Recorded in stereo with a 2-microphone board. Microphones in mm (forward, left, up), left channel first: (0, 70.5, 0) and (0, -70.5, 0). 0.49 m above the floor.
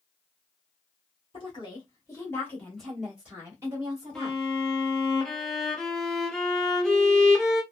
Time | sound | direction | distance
1.3 | a woman speaking | 40° left (ahead or behind) | 1.5 m
4.2 | a violin | 5° left (ahead or behind) | 0.7 m